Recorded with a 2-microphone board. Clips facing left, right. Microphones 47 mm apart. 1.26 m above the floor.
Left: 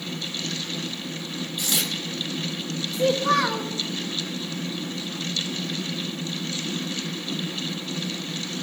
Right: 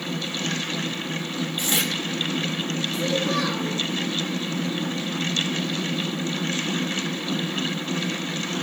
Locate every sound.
1.6 s tearing paper: 35° right (ahead or behind), 1.2 m
2.9 s a child speaking: 85° left, 3 m